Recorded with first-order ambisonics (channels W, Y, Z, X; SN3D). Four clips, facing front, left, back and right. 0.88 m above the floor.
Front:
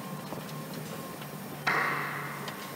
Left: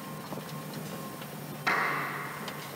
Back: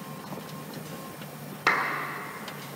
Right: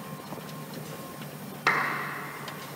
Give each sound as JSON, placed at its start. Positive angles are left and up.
{"t": 1.7, "sound": "a clap", "azimuth_deg": -145, "distance_m": 1.7}